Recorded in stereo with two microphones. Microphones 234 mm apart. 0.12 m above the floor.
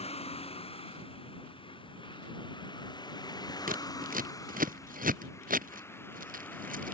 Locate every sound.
0.0 s a vehicle: 25° left (ahead or behind); by 6.9 s 5° left (ahead or behind)
3.7 s scissors: 35° right (ahead or behind)